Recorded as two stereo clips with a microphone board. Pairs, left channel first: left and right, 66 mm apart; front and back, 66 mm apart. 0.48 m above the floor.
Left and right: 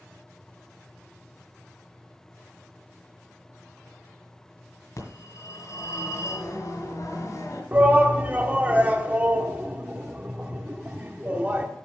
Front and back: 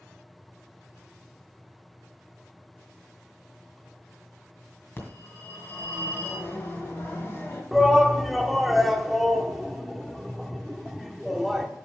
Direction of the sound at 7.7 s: 90° right.